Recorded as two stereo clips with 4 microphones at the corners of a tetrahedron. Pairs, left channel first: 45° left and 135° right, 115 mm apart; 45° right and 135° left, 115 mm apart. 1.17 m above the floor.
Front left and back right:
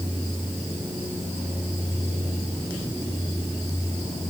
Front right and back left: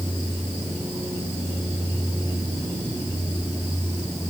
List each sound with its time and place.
Only background noise.